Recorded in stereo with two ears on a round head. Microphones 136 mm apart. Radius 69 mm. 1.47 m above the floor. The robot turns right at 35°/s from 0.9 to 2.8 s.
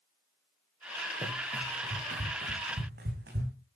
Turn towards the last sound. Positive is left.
turn(degrees=-75)  # may be behind; listen again after turning